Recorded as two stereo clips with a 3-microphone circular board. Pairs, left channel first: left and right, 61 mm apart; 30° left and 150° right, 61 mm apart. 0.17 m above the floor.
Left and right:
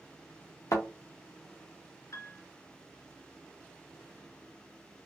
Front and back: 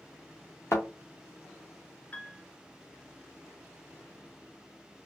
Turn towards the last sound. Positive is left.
turn(degrees=90)